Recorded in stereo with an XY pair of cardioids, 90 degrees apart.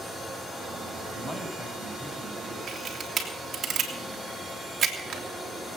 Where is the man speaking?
25° left, 9.5 m.